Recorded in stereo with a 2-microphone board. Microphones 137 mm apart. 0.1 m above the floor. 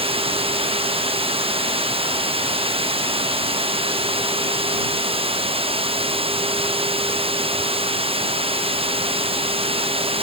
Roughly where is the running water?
Right.